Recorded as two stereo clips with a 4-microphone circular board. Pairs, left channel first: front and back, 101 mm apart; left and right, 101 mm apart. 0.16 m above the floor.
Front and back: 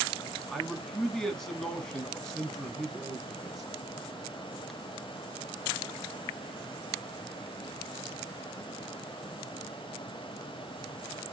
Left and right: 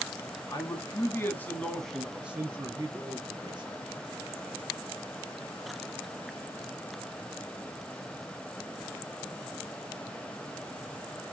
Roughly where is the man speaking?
Left.